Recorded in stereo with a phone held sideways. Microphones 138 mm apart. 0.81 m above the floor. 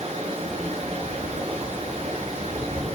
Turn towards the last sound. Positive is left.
turn(degrees=-45)  # may be behind; listen again after turning